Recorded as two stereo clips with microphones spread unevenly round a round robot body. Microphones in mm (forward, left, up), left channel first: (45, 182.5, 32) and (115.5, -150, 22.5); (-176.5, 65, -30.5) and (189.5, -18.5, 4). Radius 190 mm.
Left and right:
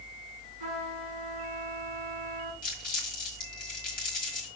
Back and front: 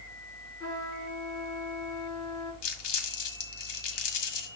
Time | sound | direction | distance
0.6 | a trumpet | 110° right | 4.5 m
2.6 | crumpling | 170° left | 1.6 m